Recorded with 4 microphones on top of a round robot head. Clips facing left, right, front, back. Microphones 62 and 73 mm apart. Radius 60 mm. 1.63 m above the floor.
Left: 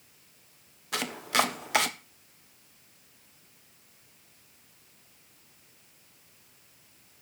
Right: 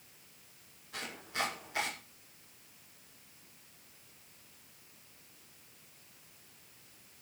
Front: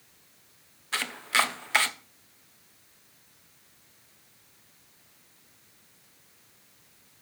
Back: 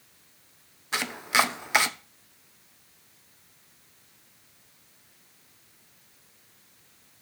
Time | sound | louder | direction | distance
0.9 | chopping | left 11 dB, back 2 dB | 110° left | 1.3 m